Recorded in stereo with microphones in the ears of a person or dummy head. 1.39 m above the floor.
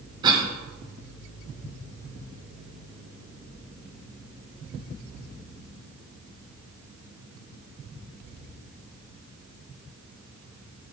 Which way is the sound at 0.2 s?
25° right (ahead or behind).